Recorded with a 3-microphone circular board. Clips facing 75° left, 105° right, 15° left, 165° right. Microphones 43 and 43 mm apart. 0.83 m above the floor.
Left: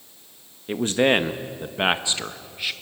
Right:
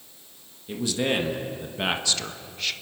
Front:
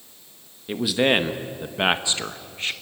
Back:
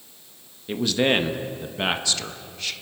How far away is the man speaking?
About 1.3 m.